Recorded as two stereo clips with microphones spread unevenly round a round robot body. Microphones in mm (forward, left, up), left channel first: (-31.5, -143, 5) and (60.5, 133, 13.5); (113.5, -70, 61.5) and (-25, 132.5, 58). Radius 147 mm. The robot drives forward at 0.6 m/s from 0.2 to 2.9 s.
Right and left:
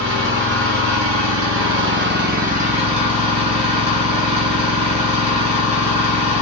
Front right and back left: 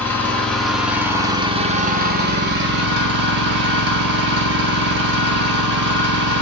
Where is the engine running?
25° left, 1.3 m; by 6.4 s 140° left, 1.0 m.